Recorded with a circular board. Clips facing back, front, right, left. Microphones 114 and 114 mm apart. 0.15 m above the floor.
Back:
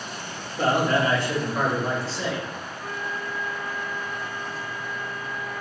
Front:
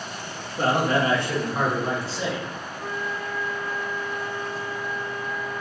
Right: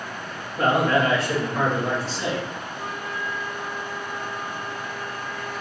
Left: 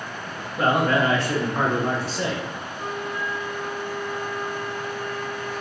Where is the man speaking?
15° left, 1.4 m; by 2.5 s 80° left, 1.8 m.